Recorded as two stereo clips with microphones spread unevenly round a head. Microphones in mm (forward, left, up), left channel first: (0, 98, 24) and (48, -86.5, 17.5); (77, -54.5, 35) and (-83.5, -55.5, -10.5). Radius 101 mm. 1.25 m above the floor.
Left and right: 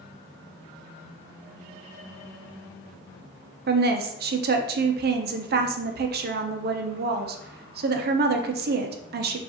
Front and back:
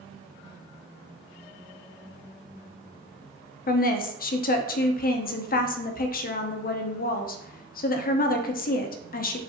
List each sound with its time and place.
3.7 s a woman speaking: 35° right, 0.6 m